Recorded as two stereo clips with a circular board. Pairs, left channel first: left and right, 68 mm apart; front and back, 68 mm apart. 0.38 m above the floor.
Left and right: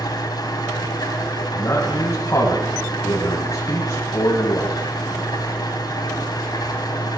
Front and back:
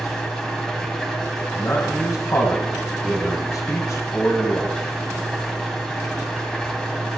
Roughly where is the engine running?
Left.